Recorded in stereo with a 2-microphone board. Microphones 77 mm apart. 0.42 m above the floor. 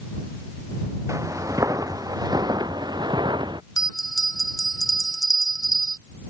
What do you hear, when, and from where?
1.1 s footsteps: 45° right (ahead or behind); by 3.6 s 75° right (ahead or behind)
3.8 s a bell: 50° left (ahead or behind)